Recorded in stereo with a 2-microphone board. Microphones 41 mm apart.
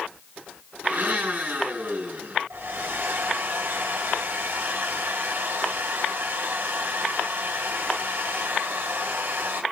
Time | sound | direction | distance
0.8 | a blender | 50° right (ahead or behind) | 7 m
2.5 | a hair dryer | 65° right (ahead or behind) | 3 m